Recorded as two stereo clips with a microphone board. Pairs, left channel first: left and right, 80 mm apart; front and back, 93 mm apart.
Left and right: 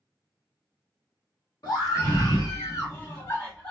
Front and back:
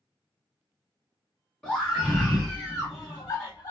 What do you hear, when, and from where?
1.6 s a scream: 75° left, 1.9 m; by 3.7 s 20° left, 1.4 m